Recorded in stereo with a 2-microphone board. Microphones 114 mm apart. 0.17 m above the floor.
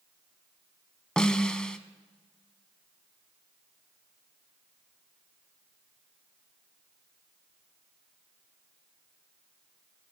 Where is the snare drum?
5° left (ahead or behind), 0.7 m.